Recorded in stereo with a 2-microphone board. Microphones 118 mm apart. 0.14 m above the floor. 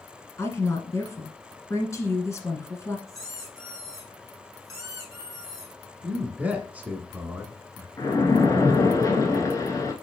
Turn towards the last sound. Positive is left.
turn(degrees=30)  # may be behind; listen again after turning